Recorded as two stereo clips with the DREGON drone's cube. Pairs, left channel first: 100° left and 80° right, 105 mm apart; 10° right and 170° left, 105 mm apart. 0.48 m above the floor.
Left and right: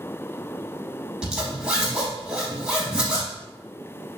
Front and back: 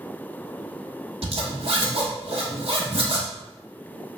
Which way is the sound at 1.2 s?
160° right.